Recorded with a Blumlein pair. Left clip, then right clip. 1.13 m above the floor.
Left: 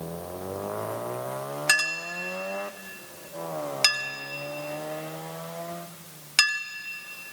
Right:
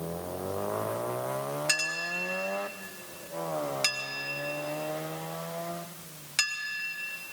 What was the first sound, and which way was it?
A clink, 70° left.